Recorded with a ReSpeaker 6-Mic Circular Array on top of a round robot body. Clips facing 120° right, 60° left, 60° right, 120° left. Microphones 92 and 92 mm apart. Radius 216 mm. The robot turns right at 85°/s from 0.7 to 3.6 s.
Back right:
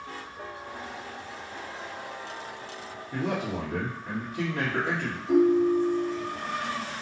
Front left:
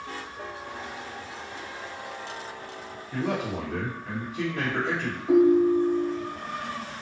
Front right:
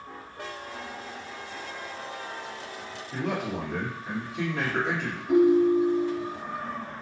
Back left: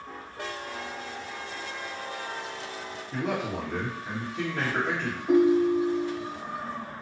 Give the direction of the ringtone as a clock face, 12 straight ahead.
9 o'clock.